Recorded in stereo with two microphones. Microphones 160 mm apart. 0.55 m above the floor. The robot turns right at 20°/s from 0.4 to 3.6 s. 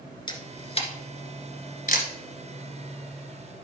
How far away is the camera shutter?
About 1.7 m.